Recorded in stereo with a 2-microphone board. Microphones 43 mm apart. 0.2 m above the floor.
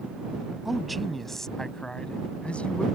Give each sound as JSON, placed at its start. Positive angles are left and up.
{"t": 0.7, "sound": "a man speaking", "side_deg": -5}